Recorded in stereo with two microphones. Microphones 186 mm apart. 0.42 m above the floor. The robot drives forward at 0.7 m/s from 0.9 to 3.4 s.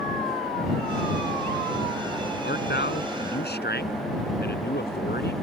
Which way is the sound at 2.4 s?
75° left (ahead or behind).